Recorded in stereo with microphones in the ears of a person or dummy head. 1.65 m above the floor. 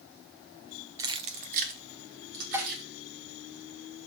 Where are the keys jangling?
20° right (ahead or behind), 0.5 m; by 2.8 s 50° right (ahead or behind), 2.5 m.